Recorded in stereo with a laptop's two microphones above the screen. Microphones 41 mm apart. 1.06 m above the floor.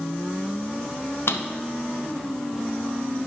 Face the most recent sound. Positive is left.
turn(degrees=65)  # may be behind; listen again after turning